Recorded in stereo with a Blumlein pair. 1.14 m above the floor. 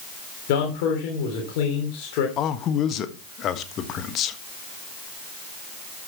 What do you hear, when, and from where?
0.5 s a man speaking: 45° left, 3 m
2.4 s a man speaking: 30° left, 1.4 m